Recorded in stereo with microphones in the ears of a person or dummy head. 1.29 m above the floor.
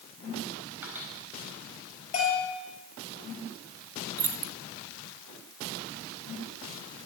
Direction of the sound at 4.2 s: 15° right (ahead or behind).